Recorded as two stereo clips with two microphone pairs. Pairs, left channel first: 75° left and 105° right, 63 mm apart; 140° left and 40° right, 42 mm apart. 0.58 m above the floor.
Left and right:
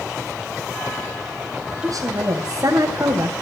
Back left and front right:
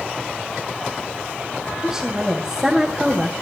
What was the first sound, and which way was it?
A woman speaking, 115° right.